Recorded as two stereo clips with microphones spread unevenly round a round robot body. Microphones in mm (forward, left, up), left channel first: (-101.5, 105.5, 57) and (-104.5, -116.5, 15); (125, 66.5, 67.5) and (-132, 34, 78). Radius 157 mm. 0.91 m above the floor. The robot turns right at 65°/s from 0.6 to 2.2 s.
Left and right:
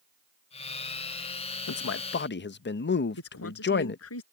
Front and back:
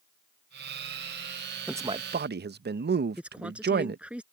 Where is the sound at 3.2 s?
100° left.